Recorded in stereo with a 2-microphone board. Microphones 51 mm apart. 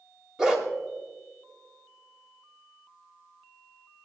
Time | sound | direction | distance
0.4 | a dog barking | 10° right (ahead or behind) | 1.9 m